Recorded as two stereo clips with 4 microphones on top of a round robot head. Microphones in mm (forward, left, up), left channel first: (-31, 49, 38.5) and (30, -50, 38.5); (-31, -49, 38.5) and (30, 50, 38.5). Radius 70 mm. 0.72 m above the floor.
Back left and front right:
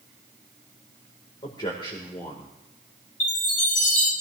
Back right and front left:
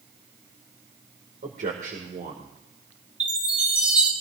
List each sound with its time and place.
1.4 s a man speaking: 70° left, 2.5 m
3.2 s a chime: 140° left, 4.5 m